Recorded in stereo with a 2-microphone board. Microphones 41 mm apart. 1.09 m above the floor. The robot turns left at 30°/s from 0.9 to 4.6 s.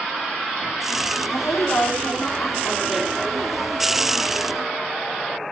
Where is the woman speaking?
75° left, 2.5 m; by 3.7 s straight ahead, 2.5 m.